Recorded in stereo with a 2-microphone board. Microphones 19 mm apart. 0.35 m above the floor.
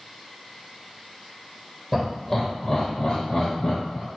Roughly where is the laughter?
Centre.